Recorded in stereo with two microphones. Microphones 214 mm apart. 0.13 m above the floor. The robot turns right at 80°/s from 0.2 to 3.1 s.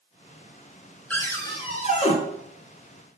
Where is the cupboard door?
10° left, 0.7 m; by 2.1 s 95° left, 0.7 m.